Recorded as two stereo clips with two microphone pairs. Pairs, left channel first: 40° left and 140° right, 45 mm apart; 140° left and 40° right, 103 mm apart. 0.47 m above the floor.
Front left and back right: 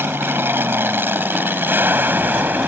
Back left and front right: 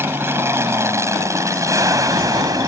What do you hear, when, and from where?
0.0 s an aircraft: 105° right; by 2.7 s 95° right